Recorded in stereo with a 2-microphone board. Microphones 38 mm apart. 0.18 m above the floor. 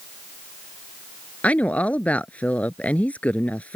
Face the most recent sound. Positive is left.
turn(degrees=45)  # may be behind; listen again after turning